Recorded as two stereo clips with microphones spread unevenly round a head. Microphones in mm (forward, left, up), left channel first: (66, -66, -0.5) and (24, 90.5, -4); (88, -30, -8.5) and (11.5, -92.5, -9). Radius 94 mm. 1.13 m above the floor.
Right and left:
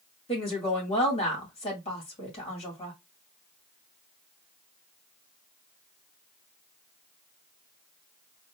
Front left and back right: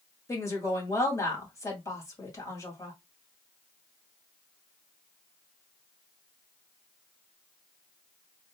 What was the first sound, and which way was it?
A woman speaking, 20° right.